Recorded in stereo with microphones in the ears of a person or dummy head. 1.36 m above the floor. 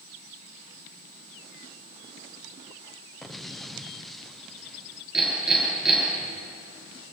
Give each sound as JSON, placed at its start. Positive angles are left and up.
{"t": 3.2, "sound": "an explosion", "side_deg": 0, "distance_m": 0.6}
{"t": 5.1, "sound": "hammering", "side_deg": 0, "distance_m": 8.0}